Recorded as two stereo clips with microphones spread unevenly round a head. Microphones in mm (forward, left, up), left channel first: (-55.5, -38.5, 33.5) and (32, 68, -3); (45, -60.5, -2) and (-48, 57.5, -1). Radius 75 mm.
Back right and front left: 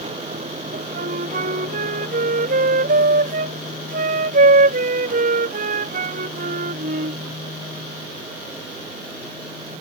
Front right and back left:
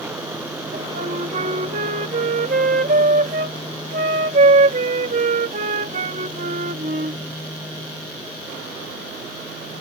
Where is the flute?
85° left.